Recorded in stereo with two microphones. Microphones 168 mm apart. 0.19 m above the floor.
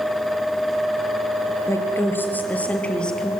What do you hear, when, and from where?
1.7 s a woman speaking: 15° left (ahead or behind), 3 m; by 3.3 s 5° left (ahead or behind), 4 m